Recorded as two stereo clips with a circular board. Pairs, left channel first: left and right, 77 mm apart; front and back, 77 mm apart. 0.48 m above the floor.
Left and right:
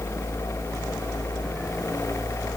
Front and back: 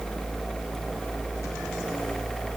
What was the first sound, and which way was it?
Only background noise.